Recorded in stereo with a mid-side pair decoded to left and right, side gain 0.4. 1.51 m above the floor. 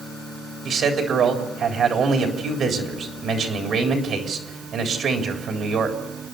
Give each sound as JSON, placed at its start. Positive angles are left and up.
{"t": 0.7, "sound": "a man speaking", "azimuth_deg": -65, "distance_m": 3.5}